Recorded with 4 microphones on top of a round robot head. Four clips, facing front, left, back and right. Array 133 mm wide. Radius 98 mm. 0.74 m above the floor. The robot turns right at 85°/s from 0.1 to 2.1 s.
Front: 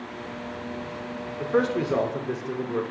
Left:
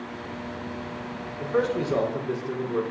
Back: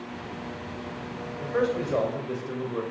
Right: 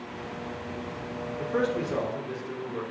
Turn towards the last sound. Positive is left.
turn(degrees=40)